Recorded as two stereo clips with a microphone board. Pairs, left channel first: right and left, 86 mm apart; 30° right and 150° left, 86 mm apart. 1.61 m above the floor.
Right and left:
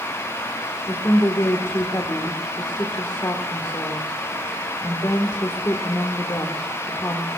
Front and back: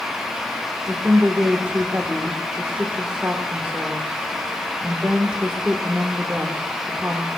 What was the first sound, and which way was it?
A woman speaking, 140° right.